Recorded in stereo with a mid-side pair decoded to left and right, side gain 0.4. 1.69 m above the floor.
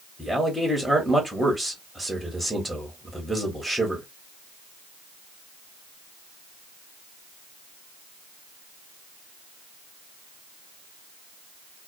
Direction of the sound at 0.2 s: 5° left.